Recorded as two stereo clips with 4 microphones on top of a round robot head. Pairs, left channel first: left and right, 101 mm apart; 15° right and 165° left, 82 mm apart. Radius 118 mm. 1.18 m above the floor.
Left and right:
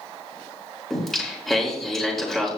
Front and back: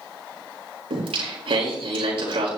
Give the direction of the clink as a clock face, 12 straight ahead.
I don't hear a clink.